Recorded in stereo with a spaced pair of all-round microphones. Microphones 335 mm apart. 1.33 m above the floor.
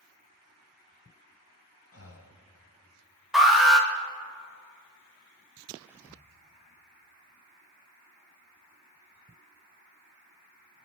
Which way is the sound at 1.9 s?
45° left (ahead or behind).